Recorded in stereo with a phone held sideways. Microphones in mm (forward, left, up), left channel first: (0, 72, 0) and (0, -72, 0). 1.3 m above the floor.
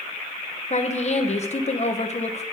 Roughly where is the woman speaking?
Left.